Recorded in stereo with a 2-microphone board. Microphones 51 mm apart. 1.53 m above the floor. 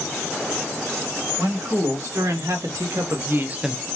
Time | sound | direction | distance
1.4 | a man speaking | 80° right | 2.5 m